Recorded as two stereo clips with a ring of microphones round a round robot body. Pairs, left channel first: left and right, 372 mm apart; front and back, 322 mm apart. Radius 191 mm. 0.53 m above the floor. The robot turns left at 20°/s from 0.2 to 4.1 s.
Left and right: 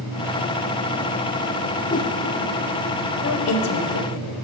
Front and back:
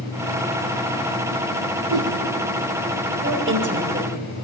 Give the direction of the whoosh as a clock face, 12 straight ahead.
7 o'clock.